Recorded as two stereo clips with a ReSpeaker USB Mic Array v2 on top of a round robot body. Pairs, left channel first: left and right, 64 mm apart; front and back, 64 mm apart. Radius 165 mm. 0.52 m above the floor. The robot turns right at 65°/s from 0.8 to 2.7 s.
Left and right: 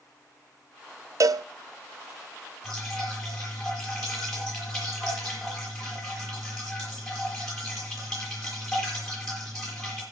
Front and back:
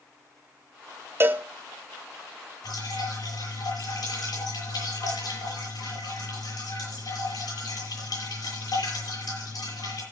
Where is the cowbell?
125° right, 0.5 m; by 1.4 s 110° right, 0.5 m.